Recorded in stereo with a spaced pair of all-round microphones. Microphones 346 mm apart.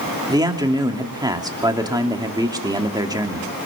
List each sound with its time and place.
0.3 s a man speaking: 10° right (ahead or behind), 2.5 m